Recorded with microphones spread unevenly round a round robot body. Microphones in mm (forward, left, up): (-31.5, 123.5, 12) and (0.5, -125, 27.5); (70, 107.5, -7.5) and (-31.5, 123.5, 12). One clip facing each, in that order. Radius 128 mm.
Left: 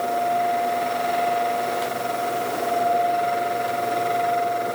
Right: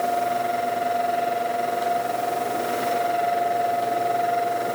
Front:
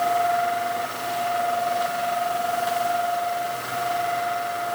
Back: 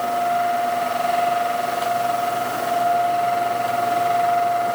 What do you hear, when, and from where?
Only background noise.